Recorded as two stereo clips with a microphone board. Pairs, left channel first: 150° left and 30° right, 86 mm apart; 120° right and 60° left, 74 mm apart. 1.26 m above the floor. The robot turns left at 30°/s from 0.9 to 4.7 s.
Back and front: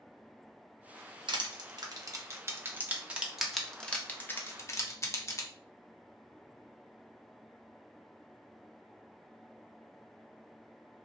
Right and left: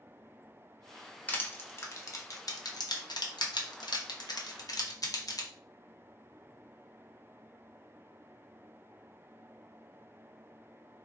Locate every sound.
1.3 s crushing: 55° right, 0.6 m; by 5.5 s 155° right, 0.6 m